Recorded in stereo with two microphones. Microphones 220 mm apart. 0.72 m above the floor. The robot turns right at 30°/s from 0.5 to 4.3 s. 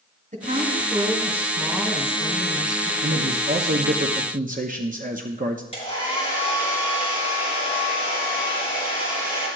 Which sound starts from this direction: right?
A man speaking, at 3.0 s.